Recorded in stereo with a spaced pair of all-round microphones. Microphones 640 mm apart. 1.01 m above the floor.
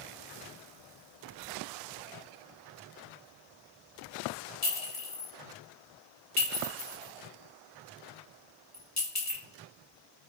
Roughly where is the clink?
Left.